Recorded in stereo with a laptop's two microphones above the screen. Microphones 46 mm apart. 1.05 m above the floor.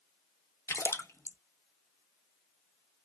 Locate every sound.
0.7 s a splash: 75° left (ahead or behind), 0.6 m